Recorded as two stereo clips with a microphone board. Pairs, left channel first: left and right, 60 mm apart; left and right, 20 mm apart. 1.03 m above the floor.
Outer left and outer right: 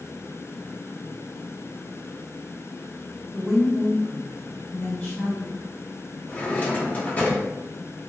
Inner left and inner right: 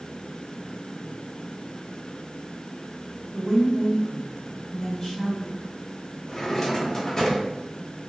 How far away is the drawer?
About 0.7 m.